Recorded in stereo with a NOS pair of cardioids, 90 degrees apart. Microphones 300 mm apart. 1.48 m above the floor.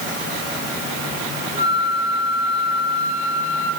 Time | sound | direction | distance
1.6 | a flute | 35° left | 4 m